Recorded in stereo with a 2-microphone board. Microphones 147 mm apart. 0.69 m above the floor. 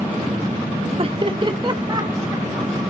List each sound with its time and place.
1.0 s laughter: 40° right (ahead or behind), 1.3 m; by 2.7 s 25° right (ahead or behind), 3.5 m